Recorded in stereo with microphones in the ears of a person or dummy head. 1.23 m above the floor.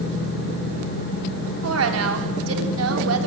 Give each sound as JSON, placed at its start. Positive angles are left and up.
{"t": 1.6, "sound": "a woman speaking", "side_deg": -80, "distance_m": 3.5}